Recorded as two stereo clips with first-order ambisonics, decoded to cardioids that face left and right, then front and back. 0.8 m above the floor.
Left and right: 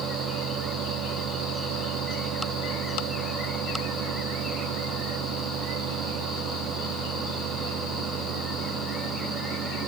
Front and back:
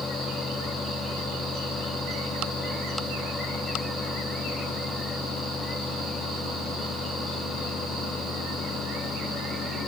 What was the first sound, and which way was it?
Only background noise.